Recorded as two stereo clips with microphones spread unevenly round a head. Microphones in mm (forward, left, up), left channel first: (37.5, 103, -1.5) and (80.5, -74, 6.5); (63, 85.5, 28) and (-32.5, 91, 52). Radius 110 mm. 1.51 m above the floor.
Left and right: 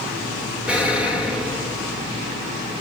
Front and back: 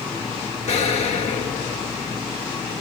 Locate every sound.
0.7 s an explosion: 5° left, 4 m